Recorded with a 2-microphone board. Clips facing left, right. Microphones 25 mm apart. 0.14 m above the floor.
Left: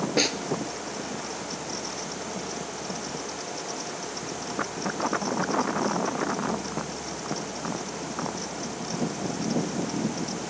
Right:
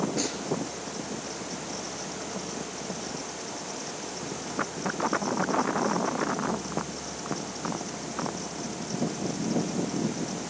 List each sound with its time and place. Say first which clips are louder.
0.2 s a snare drum: left 6 dB; 55° left (ahead or behind), 1.7 m